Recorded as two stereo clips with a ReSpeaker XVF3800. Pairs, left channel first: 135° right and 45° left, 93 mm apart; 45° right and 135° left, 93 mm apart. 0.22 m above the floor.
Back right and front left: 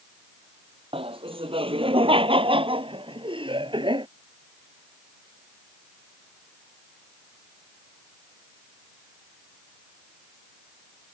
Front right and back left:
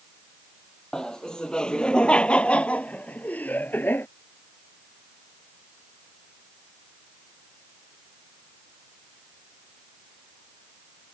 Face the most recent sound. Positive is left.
turn(degrees=20)